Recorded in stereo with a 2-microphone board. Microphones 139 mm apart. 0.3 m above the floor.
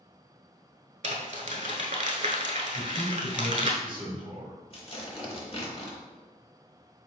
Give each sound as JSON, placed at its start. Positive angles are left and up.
{"t": 1.0, "sound": "crumpling", "side_deg": -55, "distance_m": 0.7}
{"t": 2.7, "sound": "a man speaking", "side_deg": -40, "distance_m": 2.0}
{"t": 4.7, "sound": "tearing paper", "side_deg": 40, "distance_m": 0.8}